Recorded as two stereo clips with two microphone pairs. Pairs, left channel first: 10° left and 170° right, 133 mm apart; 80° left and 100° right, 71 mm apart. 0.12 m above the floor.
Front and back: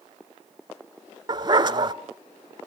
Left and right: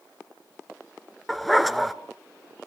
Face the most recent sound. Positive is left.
turn(degrees=170)